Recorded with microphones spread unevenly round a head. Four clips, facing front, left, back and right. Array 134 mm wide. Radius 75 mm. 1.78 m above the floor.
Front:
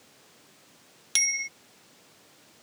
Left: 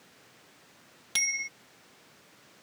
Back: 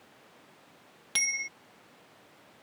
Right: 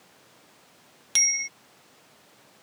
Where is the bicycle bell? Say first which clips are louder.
Right 2 dB, front 2 dB; 165° right.